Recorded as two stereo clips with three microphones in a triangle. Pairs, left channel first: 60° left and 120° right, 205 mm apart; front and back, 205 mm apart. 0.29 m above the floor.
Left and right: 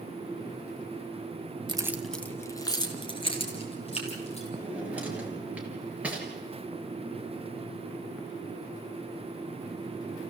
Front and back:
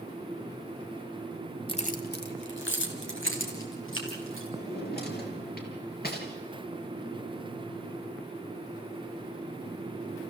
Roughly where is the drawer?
Ahead right.